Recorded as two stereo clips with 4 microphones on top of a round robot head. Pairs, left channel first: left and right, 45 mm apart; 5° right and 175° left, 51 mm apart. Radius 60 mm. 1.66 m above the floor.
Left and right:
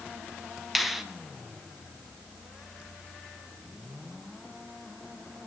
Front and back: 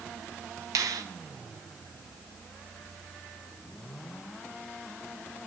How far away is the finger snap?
About 1.3 m.